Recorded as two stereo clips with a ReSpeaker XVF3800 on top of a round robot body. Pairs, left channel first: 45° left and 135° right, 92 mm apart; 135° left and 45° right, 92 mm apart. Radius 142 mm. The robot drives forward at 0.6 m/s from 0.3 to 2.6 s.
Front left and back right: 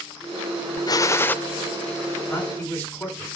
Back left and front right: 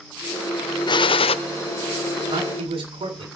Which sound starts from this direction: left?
A gunshot, at 0.9 s.